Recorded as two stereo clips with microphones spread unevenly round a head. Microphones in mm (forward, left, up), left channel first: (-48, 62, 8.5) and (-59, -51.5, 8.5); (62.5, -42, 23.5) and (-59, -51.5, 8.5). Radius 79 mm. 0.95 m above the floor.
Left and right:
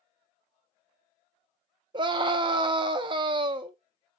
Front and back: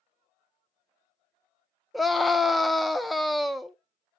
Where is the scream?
95° right, 0.5 m.